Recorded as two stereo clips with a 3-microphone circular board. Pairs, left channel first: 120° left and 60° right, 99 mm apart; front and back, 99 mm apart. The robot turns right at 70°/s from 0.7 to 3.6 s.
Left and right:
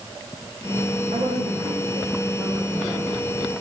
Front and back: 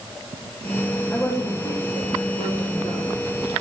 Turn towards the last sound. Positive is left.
turn(degrees=100)